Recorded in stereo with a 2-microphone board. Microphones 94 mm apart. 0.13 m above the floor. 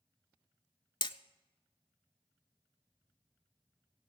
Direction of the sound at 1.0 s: 55° left (ahead or behind).